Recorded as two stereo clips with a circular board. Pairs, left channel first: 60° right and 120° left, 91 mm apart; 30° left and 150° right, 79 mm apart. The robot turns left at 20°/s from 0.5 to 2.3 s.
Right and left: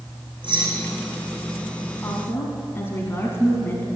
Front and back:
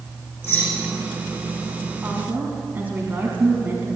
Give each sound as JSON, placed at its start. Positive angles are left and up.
{"t": 0.4, "sound": "keys jangling", "azimuth_deg": 90, "distance_m": 5.5}
{"t": 2.0, "sound": "a woman speaking", "azimuth_deg": -95, "distance_m": 1.8}